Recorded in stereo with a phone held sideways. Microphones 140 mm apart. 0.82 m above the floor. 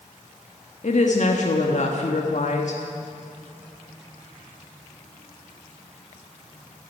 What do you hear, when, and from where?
0.8 s a woman speaking: 60° left (ahead or behind), 1.5 m